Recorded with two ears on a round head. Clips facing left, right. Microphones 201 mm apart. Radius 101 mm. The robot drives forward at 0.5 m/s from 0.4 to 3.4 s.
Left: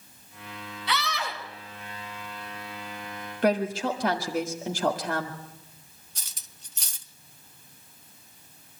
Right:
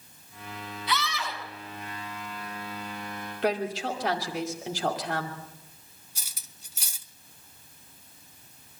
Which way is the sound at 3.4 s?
40° left (ahead or behind).